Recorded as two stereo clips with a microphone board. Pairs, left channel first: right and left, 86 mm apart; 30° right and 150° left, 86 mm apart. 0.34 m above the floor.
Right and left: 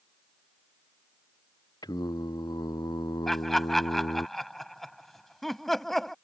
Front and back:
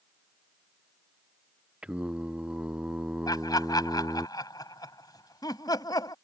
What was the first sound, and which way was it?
Singing, 130° right.